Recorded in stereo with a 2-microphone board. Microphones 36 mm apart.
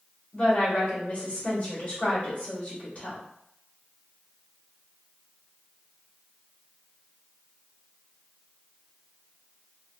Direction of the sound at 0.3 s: 45° left (ahead or behind).